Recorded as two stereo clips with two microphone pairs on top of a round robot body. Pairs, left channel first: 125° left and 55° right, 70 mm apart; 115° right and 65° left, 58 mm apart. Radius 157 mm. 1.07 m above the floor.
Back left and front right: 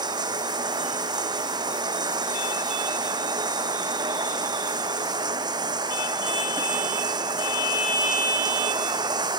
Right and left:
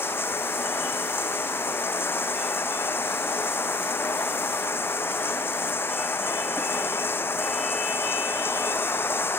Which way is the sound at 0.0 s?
70° right.